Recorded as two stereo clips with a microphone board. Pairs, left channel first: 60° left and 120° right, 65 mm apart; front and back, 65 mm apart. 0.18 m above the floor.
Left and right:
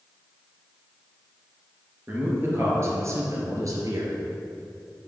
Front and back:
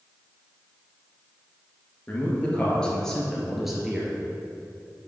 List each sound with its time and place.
2.1 s a man speaking: 65° right, 2.5 m; by 4.1 s 100° right, 2.5 m